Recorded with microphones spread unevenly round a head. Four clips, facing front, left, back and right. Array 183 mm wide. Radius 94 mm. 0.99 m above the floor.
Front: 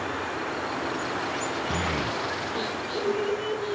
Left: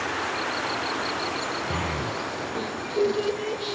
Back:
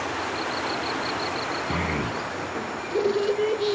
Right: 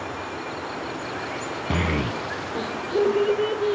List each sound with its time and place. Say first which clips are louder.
1.7 s a child speaking: right 3 dB, back 1 dB; 90° right, 0.5 m; by 3.8 s 145° right, 1.7 m